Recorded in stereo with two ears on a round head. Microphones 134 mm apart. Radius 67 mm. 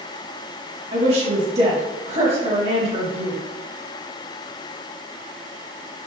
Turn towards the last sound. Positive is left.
turn(degrees=-45)  # may be behind; listen again after turning